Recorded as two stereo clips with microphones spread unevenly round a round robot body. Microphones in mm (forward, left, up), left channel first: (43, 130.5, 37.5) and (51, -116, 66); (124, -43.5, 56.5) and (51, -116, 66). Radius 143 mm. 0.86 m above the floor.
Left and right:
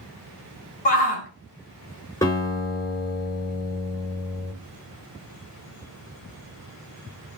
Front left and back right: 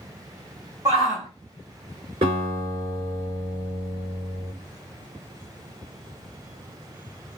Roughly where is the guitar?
Behind.